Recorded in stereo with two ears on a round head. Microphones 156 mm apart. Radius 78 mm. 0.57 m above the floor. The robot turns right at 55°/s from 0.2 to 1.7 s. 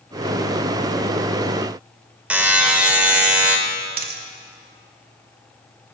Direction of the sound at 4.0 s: 55° right (ahead or behind).